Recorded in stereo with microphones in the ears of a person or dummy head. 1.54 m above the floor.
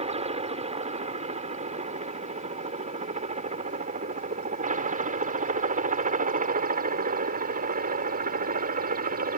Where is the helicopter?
30° right (ahead or behind); by 9.4 s 45° right (ahead or behind).